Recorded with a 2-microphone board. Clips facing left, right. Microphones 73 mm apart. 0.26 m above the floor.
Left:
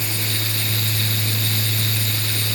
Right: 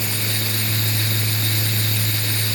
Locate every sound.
Only background noise.